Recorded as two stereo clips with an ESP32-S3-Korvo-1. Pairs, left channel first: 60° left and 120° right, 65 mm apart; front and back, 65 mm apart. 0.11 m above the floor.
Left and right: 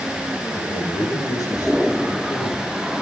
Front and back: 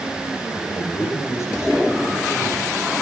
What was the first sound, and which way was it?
A man speaking, 40° left.